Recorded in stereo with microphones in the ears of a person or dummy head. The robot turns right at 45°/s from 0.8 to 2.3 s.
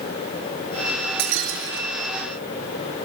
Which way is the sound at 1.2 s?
115° right.